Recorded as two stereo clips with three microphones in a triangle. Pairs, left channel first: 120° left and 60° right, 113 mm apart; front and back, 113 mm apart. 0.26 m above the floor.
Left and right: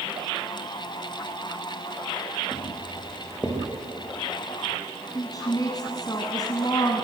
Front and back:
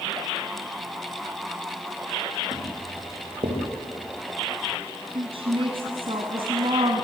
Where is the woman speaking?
165° left, 1.9 m.